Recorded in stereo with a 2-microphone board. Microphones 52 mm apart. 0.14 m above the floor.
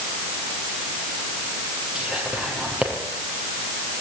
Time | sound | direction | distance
1.9 | whispering | 20° right (ahead or behind) | 5 m